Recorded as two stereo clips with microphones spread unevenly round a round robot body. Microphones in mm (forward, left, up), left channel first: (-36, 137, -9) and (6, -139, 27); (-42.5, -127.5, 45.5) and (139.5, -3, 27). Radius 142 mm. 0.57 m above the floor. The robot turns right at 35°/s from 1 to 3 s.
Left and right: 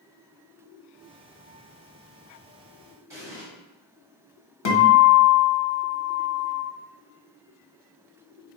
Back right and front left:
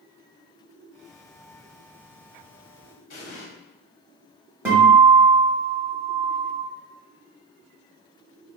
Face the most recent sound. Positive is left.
turn(degrees=115)